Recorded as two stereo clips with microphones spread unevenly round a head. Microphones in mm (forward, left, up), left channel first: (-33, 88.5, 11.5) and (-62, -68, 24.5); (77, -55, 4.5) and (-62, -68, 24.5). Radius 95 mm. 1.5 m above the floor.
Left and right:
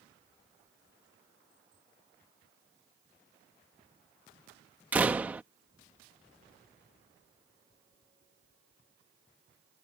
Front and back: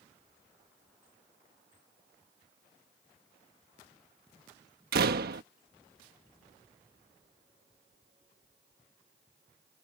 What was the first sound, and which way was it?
A door slam, straight behind.